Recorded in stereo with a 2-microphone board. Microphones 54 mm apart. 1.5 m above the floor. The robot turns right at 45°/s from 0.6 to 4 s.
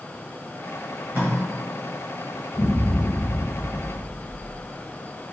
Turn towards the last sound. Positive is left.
turn(degrees=170)